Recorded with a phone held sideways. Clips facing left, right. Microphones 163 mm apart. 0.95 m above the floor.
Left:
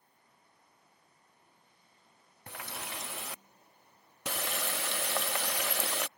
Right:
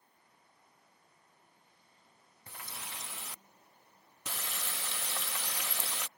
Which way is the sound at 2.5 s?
70° left (ahead or behind).